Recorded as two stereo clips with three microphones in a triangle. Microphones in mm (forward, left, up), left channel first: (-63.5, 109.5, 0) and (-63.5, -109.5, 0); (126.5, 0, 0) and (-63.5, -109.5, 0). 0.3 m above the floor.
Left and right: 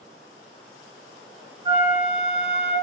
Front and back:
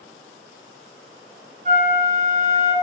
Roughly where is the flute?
Behind right.